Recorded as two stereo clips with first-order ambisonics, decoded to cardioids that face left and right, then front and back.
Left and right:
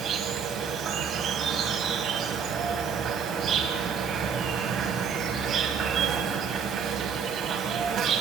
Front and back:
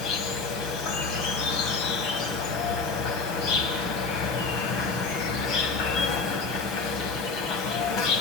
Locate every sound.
0.0 s an insect: 30° right, 1.9 m